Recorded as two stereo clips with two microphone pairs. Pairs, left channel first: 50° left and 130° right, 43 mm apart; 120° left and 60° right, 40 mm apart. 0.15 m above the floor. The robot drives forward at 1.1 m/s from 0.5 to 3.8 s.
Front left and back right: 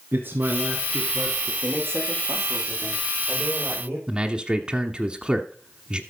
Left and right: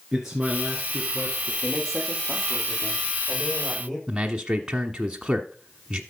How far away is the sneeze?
I don't hear a sneeze.